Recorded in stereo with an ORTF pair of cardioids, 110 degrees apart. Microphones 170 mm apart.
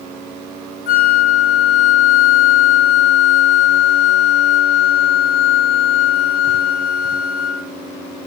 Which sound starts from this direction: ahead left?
A flute, at 0.9 s.